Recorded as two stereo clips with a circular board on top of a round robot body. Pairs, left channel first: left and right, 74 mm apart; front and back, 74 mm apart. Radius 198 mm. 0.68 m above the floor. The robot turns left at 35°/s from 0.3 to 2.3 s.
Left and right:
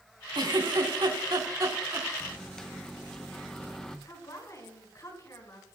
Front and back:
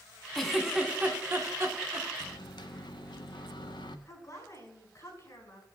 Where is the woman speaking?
50° left, 5.5 m.